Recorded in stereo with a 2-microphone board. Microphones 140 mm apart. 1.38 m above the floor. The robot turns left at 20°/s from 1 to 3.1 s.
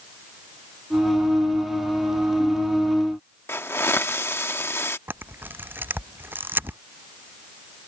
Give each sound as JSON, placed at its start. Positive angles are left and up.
{"t": 3.5, "sound": "a hiss", "side_deg": 20}
{"t": 5.1, "sound": "a camera shutter", "side_deg": -15}